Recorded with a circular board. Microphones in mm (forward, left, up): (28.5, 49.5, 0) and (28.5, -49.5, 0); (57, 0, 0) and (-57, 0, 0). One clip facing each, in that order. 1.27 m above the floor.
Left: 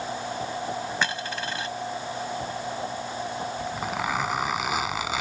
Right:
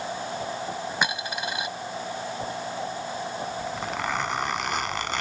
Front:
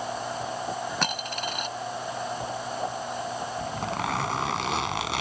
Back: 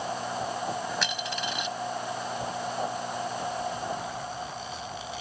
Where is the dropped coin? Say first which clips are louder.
Right 1 dB, front 2 dB; 15° right.